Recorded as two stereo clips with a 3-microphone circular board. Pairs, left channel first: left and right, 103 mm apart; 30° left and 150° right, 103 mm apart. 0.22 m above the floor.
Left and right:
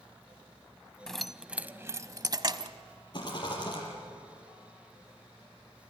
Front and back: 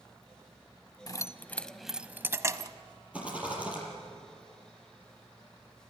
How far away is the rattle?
About 6 m.